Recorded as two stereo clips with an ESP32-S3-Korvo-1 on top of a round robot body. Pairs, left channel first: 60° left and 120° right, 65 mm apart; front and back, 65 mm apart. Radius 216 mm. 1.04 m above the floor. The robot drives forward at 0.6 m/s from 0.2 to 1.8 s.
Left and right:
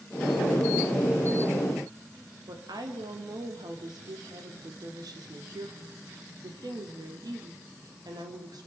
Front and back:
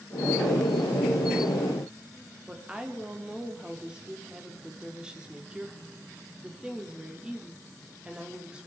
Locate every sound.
2.5 s a woman speaking: 105° right, 3 m